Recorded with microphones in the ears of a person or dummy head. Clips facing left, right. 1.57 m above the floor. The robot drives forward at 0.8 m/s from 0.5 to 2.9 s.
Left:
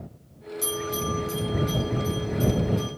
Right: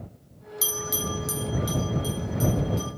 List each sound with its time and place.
0.6 s a bell: 60° right (ahead or behind), 1.1 m; by 2.9 s 30° right (ahead or behind), 1.8 m